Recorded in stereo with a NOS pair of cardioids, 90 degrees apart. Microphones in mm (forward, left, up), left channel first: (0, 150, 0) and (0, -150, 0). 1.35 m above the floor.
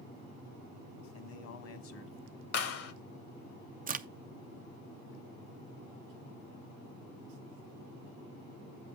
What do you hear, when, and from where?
1.1 s a man speaking: 65° left, 1.5 m
2.5 s a clap: 50° left, 1.1 m
3.9 s a crack: 30° right, 0.6 m